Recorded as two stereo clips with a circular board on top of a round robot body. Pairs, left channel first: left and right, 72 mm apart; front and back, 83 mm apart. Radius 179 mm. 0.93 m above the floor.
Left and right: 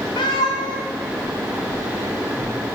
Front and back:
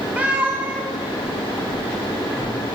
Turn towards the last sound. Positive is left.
turn(degrees=105)